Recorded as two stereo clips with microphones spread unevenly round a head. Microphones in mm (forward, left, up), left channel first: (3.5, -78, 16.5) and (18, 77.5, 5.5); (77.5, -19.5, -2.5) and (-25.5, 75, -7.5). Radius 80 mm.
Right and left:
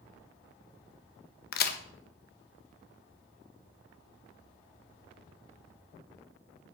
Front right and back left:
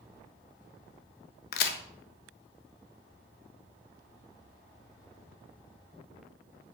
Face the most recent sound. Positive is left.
turn(degrees=-70)